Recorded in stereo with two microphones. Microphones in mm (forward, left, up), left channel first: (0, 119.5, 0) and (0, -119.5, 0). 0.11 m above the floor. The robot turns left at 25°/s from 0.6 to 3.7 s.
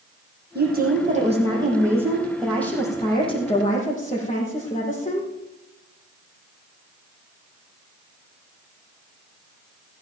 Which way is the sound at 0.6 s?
135° right.